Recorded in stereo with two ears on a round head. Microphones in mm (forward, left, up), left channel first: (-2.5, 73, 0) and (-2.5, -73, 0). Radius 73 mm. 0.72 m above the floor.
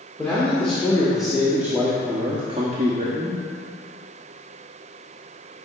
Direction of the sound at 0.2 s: 10° left (ahead or behind).